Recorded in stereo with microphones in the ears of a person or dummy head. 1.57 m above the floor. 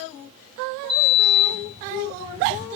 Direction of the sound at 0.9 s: 40° right (ahead or behind).